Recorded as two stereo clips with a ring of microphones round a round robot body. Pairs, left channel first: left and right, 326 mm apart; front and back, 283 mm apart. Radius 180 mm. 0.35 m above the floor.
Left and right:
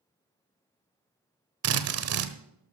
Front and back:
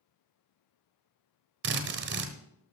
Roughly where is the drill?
Behind right.